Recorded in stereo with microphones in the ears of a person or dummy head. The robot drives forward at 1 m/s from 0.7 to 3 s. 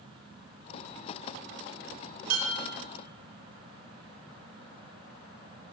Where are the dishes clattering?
80° right, 4 m; by 2.7 s 85° right, 4 m.